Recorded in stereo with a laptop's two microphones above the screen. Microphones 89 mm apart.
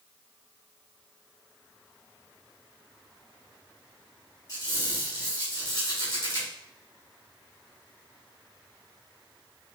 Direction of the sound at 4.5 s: 45° left (ahead or behind).